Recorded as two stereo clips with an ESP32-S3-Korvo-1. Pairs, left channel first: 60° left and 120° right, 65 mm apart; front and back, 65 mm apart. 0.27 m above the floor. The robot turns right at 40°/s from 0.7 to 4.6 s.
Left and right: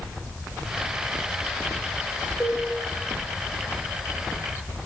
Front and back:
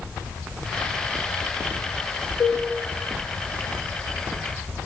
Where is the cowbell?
35° right, 1.0 m; by 2.6 s 25° right, 1.0 m.